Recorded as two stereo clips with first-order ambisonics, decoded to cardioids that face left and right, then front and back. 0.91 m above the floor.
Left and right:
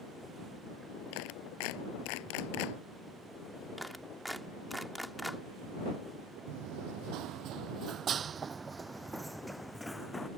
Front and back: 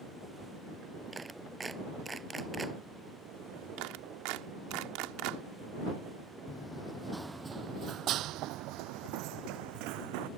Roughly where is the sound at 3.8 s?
Behind.